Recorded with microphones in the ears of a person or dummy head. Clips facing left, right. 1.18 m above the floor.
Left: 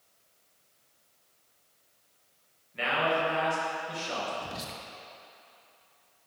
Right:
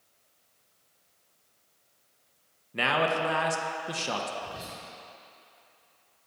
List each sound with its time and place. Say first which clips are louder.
2.7 s a man speaking: right 1 dB; 60° right (ahead or behind), 0.8 m
4.4 s whispering: even; 55° left (ahead or behind), 1.4 m